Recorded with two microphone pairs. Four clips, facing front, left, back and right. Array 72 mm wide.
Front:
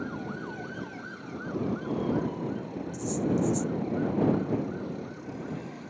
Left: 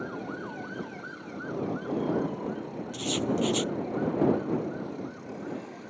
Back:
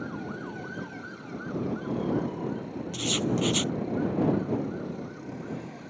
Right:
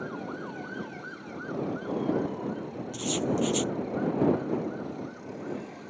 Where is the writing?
165° left.